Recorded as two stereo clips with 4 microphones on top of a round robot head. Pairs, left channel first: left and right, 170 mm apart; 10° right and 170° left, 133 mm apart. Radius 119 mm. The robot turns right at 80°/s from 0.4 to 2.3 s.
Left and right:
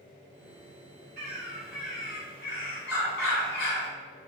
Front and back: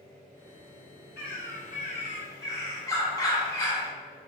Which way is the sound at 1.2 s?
40° right.